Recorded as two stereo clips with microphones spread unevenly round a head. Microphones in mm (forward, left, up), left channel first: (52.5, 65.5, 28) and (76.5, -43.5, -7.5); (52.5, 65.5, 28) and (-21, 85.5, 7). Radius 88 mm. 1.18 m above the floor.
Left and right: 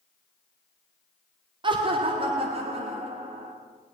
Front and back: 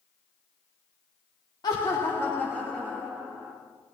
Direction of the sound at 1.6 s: 70° right.